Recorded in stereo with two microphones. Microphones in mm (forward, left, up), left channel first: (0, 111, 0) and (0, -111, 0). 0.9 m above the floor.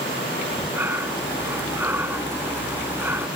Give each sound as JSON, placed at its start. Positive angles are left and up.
{"t": 0.4, "sound": "breathing", "side_deg": -10}